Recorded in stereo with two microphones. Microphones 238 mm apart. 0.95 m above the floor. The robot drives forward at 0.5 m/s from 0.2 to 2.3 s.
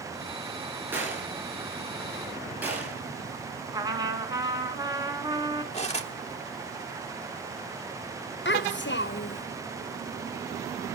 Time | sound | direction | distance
0.9 | a gunshot | 10° right (ahead or behind) | 4 m
3.7 | a trumpet | 15° right (ahead or behind) | 1.9 m
5.7 | cutlery clinking | 25° left (ahead or behind) | 1.3 m
8.4 | a child speaking | 50° left (ahead or behind) | 0.6 m